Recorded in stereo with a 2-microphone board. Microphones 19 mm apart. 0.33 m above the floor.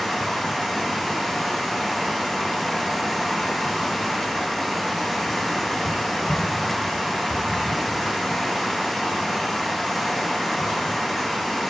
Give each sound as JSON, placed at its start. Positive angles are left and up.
{"t": 0.0, "sound": "running water", "side_deg": 25, "distance_m": 5.5}